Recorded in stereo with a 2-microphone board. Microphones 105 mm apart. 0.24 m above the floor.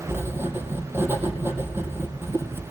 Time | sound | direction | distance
0.1 | writing | 20° right (ahead or behind) | 2.5 m